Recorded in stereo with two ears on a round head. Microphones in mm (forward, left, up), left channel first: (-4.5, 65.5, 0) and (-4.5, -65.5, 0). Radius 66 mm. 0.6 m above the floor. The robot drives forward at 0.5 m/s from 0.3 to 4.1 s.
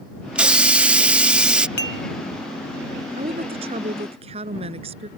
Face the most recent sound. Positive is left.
turn(degrees=-40)  # may be behind; listen again after turning